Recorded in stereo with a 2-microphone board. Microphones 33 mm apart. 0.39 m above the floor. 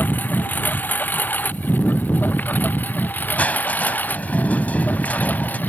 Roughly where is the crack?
I don't hear a crack.